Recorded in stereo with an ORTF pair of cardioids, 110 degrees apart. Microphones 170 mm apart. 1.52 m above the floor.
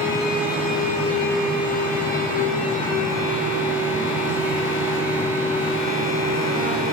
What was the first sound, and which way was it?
A fan, 55° left.